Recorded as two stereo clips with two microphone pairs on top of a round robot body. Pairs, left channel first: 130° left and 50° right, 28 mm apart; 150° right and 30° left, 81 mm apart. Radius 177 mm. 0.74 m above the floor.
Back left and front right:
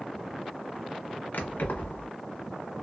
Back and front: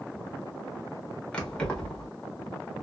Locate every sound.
1.3 s keys jangling: 130° left, 1.2 m